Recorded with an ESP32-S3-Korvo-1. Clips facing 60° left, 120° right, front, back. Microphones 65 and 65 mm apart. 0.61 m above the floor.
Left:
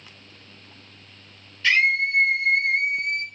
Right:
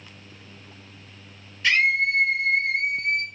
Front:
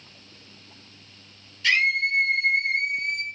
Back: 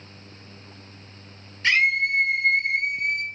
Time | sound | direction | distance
1.6 | a scream | 170° left | 1.4 m